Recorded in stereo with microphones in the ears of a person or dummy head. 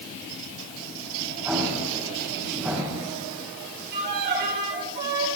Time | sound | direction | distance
1.4 | an explosion | 10° right (ahead or behind) | 6 m
3.9 | a violin | 55° right (ahead or behind) | 2.5 m